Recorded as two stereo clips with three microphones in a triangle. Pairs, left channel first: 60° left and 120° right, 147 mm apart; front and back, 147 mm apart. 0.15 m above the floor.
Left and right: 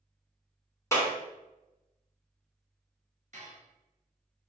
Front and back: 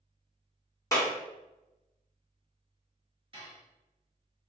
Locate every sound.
0.9 s a clap: 20° left, 0.9 m
3.3 s dishes clattering: 135° right, 1.7 m